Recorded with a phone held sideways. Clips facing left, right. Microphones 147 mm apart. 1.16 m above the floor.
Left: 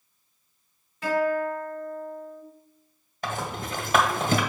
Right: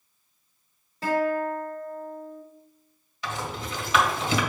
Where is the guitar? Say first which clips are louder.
Even; 35° right (ahead or behind), 3 m.